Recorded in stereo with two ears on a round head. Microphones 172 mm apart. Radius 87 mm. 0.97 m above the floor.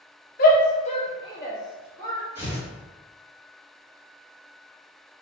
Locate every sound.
0.4 s a shout: 45° left (ahead or behind), 0.9 m; by 2.2 s 10° left (ahead or behind), 1.7 m
2.4 s tearing paper: 10° right (ahead or behind), 1.8 m